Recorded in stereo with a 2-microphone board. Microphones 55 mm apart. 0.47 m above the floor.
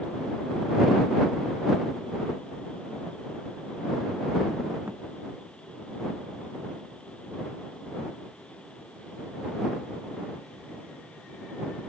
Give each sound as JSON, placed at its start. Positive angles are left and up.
{"t": 4.9, "sound": "a thud", "side_deg": -40}